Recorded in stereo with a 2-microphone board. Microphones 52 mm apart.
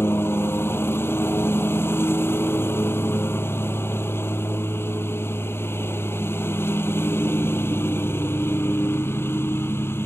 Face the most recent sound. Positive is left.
turn(degrees=50)  # may be behind; listen again after turning